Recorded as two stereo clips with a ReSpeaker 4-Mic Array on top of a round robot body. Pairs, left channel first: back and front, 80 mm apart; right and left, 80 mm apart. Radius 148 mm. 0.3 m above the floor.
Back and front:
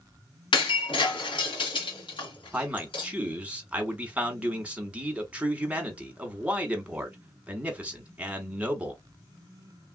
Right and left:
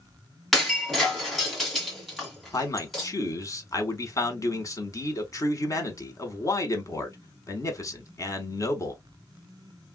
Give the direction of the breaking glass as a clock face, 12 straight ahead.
6 o'clock.